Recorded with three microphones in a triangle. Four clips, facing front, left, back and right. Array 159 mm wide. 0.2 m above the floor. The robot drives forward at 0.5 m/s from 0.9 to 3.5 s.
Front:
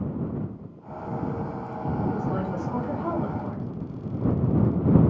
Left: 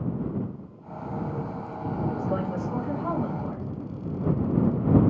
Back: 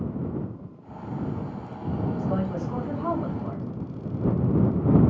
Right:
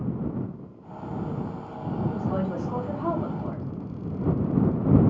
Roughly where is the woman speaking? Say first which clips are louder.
Even, even; right.